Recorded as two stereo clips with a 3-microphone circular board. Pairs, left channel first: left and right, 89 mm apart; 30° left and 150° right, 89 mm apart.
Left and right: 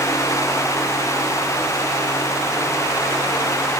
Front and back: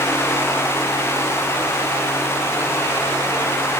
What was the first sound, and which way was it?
Only background noise.